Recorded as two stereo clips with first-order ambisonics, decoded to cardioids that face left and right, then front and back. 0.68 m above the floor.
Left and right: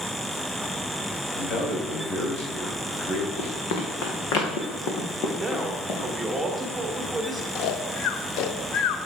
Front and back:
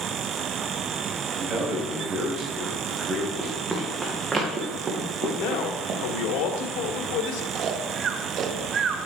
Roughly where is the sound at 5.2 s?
Ahead.